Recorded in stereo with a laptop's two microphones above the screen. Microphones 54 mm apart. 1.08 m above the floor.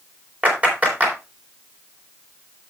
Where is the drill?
No drill in this recording.